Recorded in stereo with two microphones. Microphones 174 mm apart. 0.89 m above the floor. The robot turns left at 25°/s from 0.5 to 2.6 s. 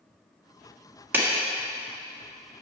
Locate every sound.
1.1 s a clap: 10° right (ahead or behind), 1.6 m